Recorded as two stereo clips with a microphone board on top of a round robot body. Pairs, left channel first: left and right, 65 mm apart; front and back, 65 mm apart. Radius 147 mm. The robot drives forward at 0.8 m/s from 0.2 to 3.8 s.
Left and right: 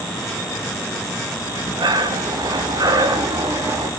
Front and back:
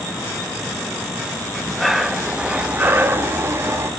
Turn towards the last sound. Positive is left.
turn(degrees=-135)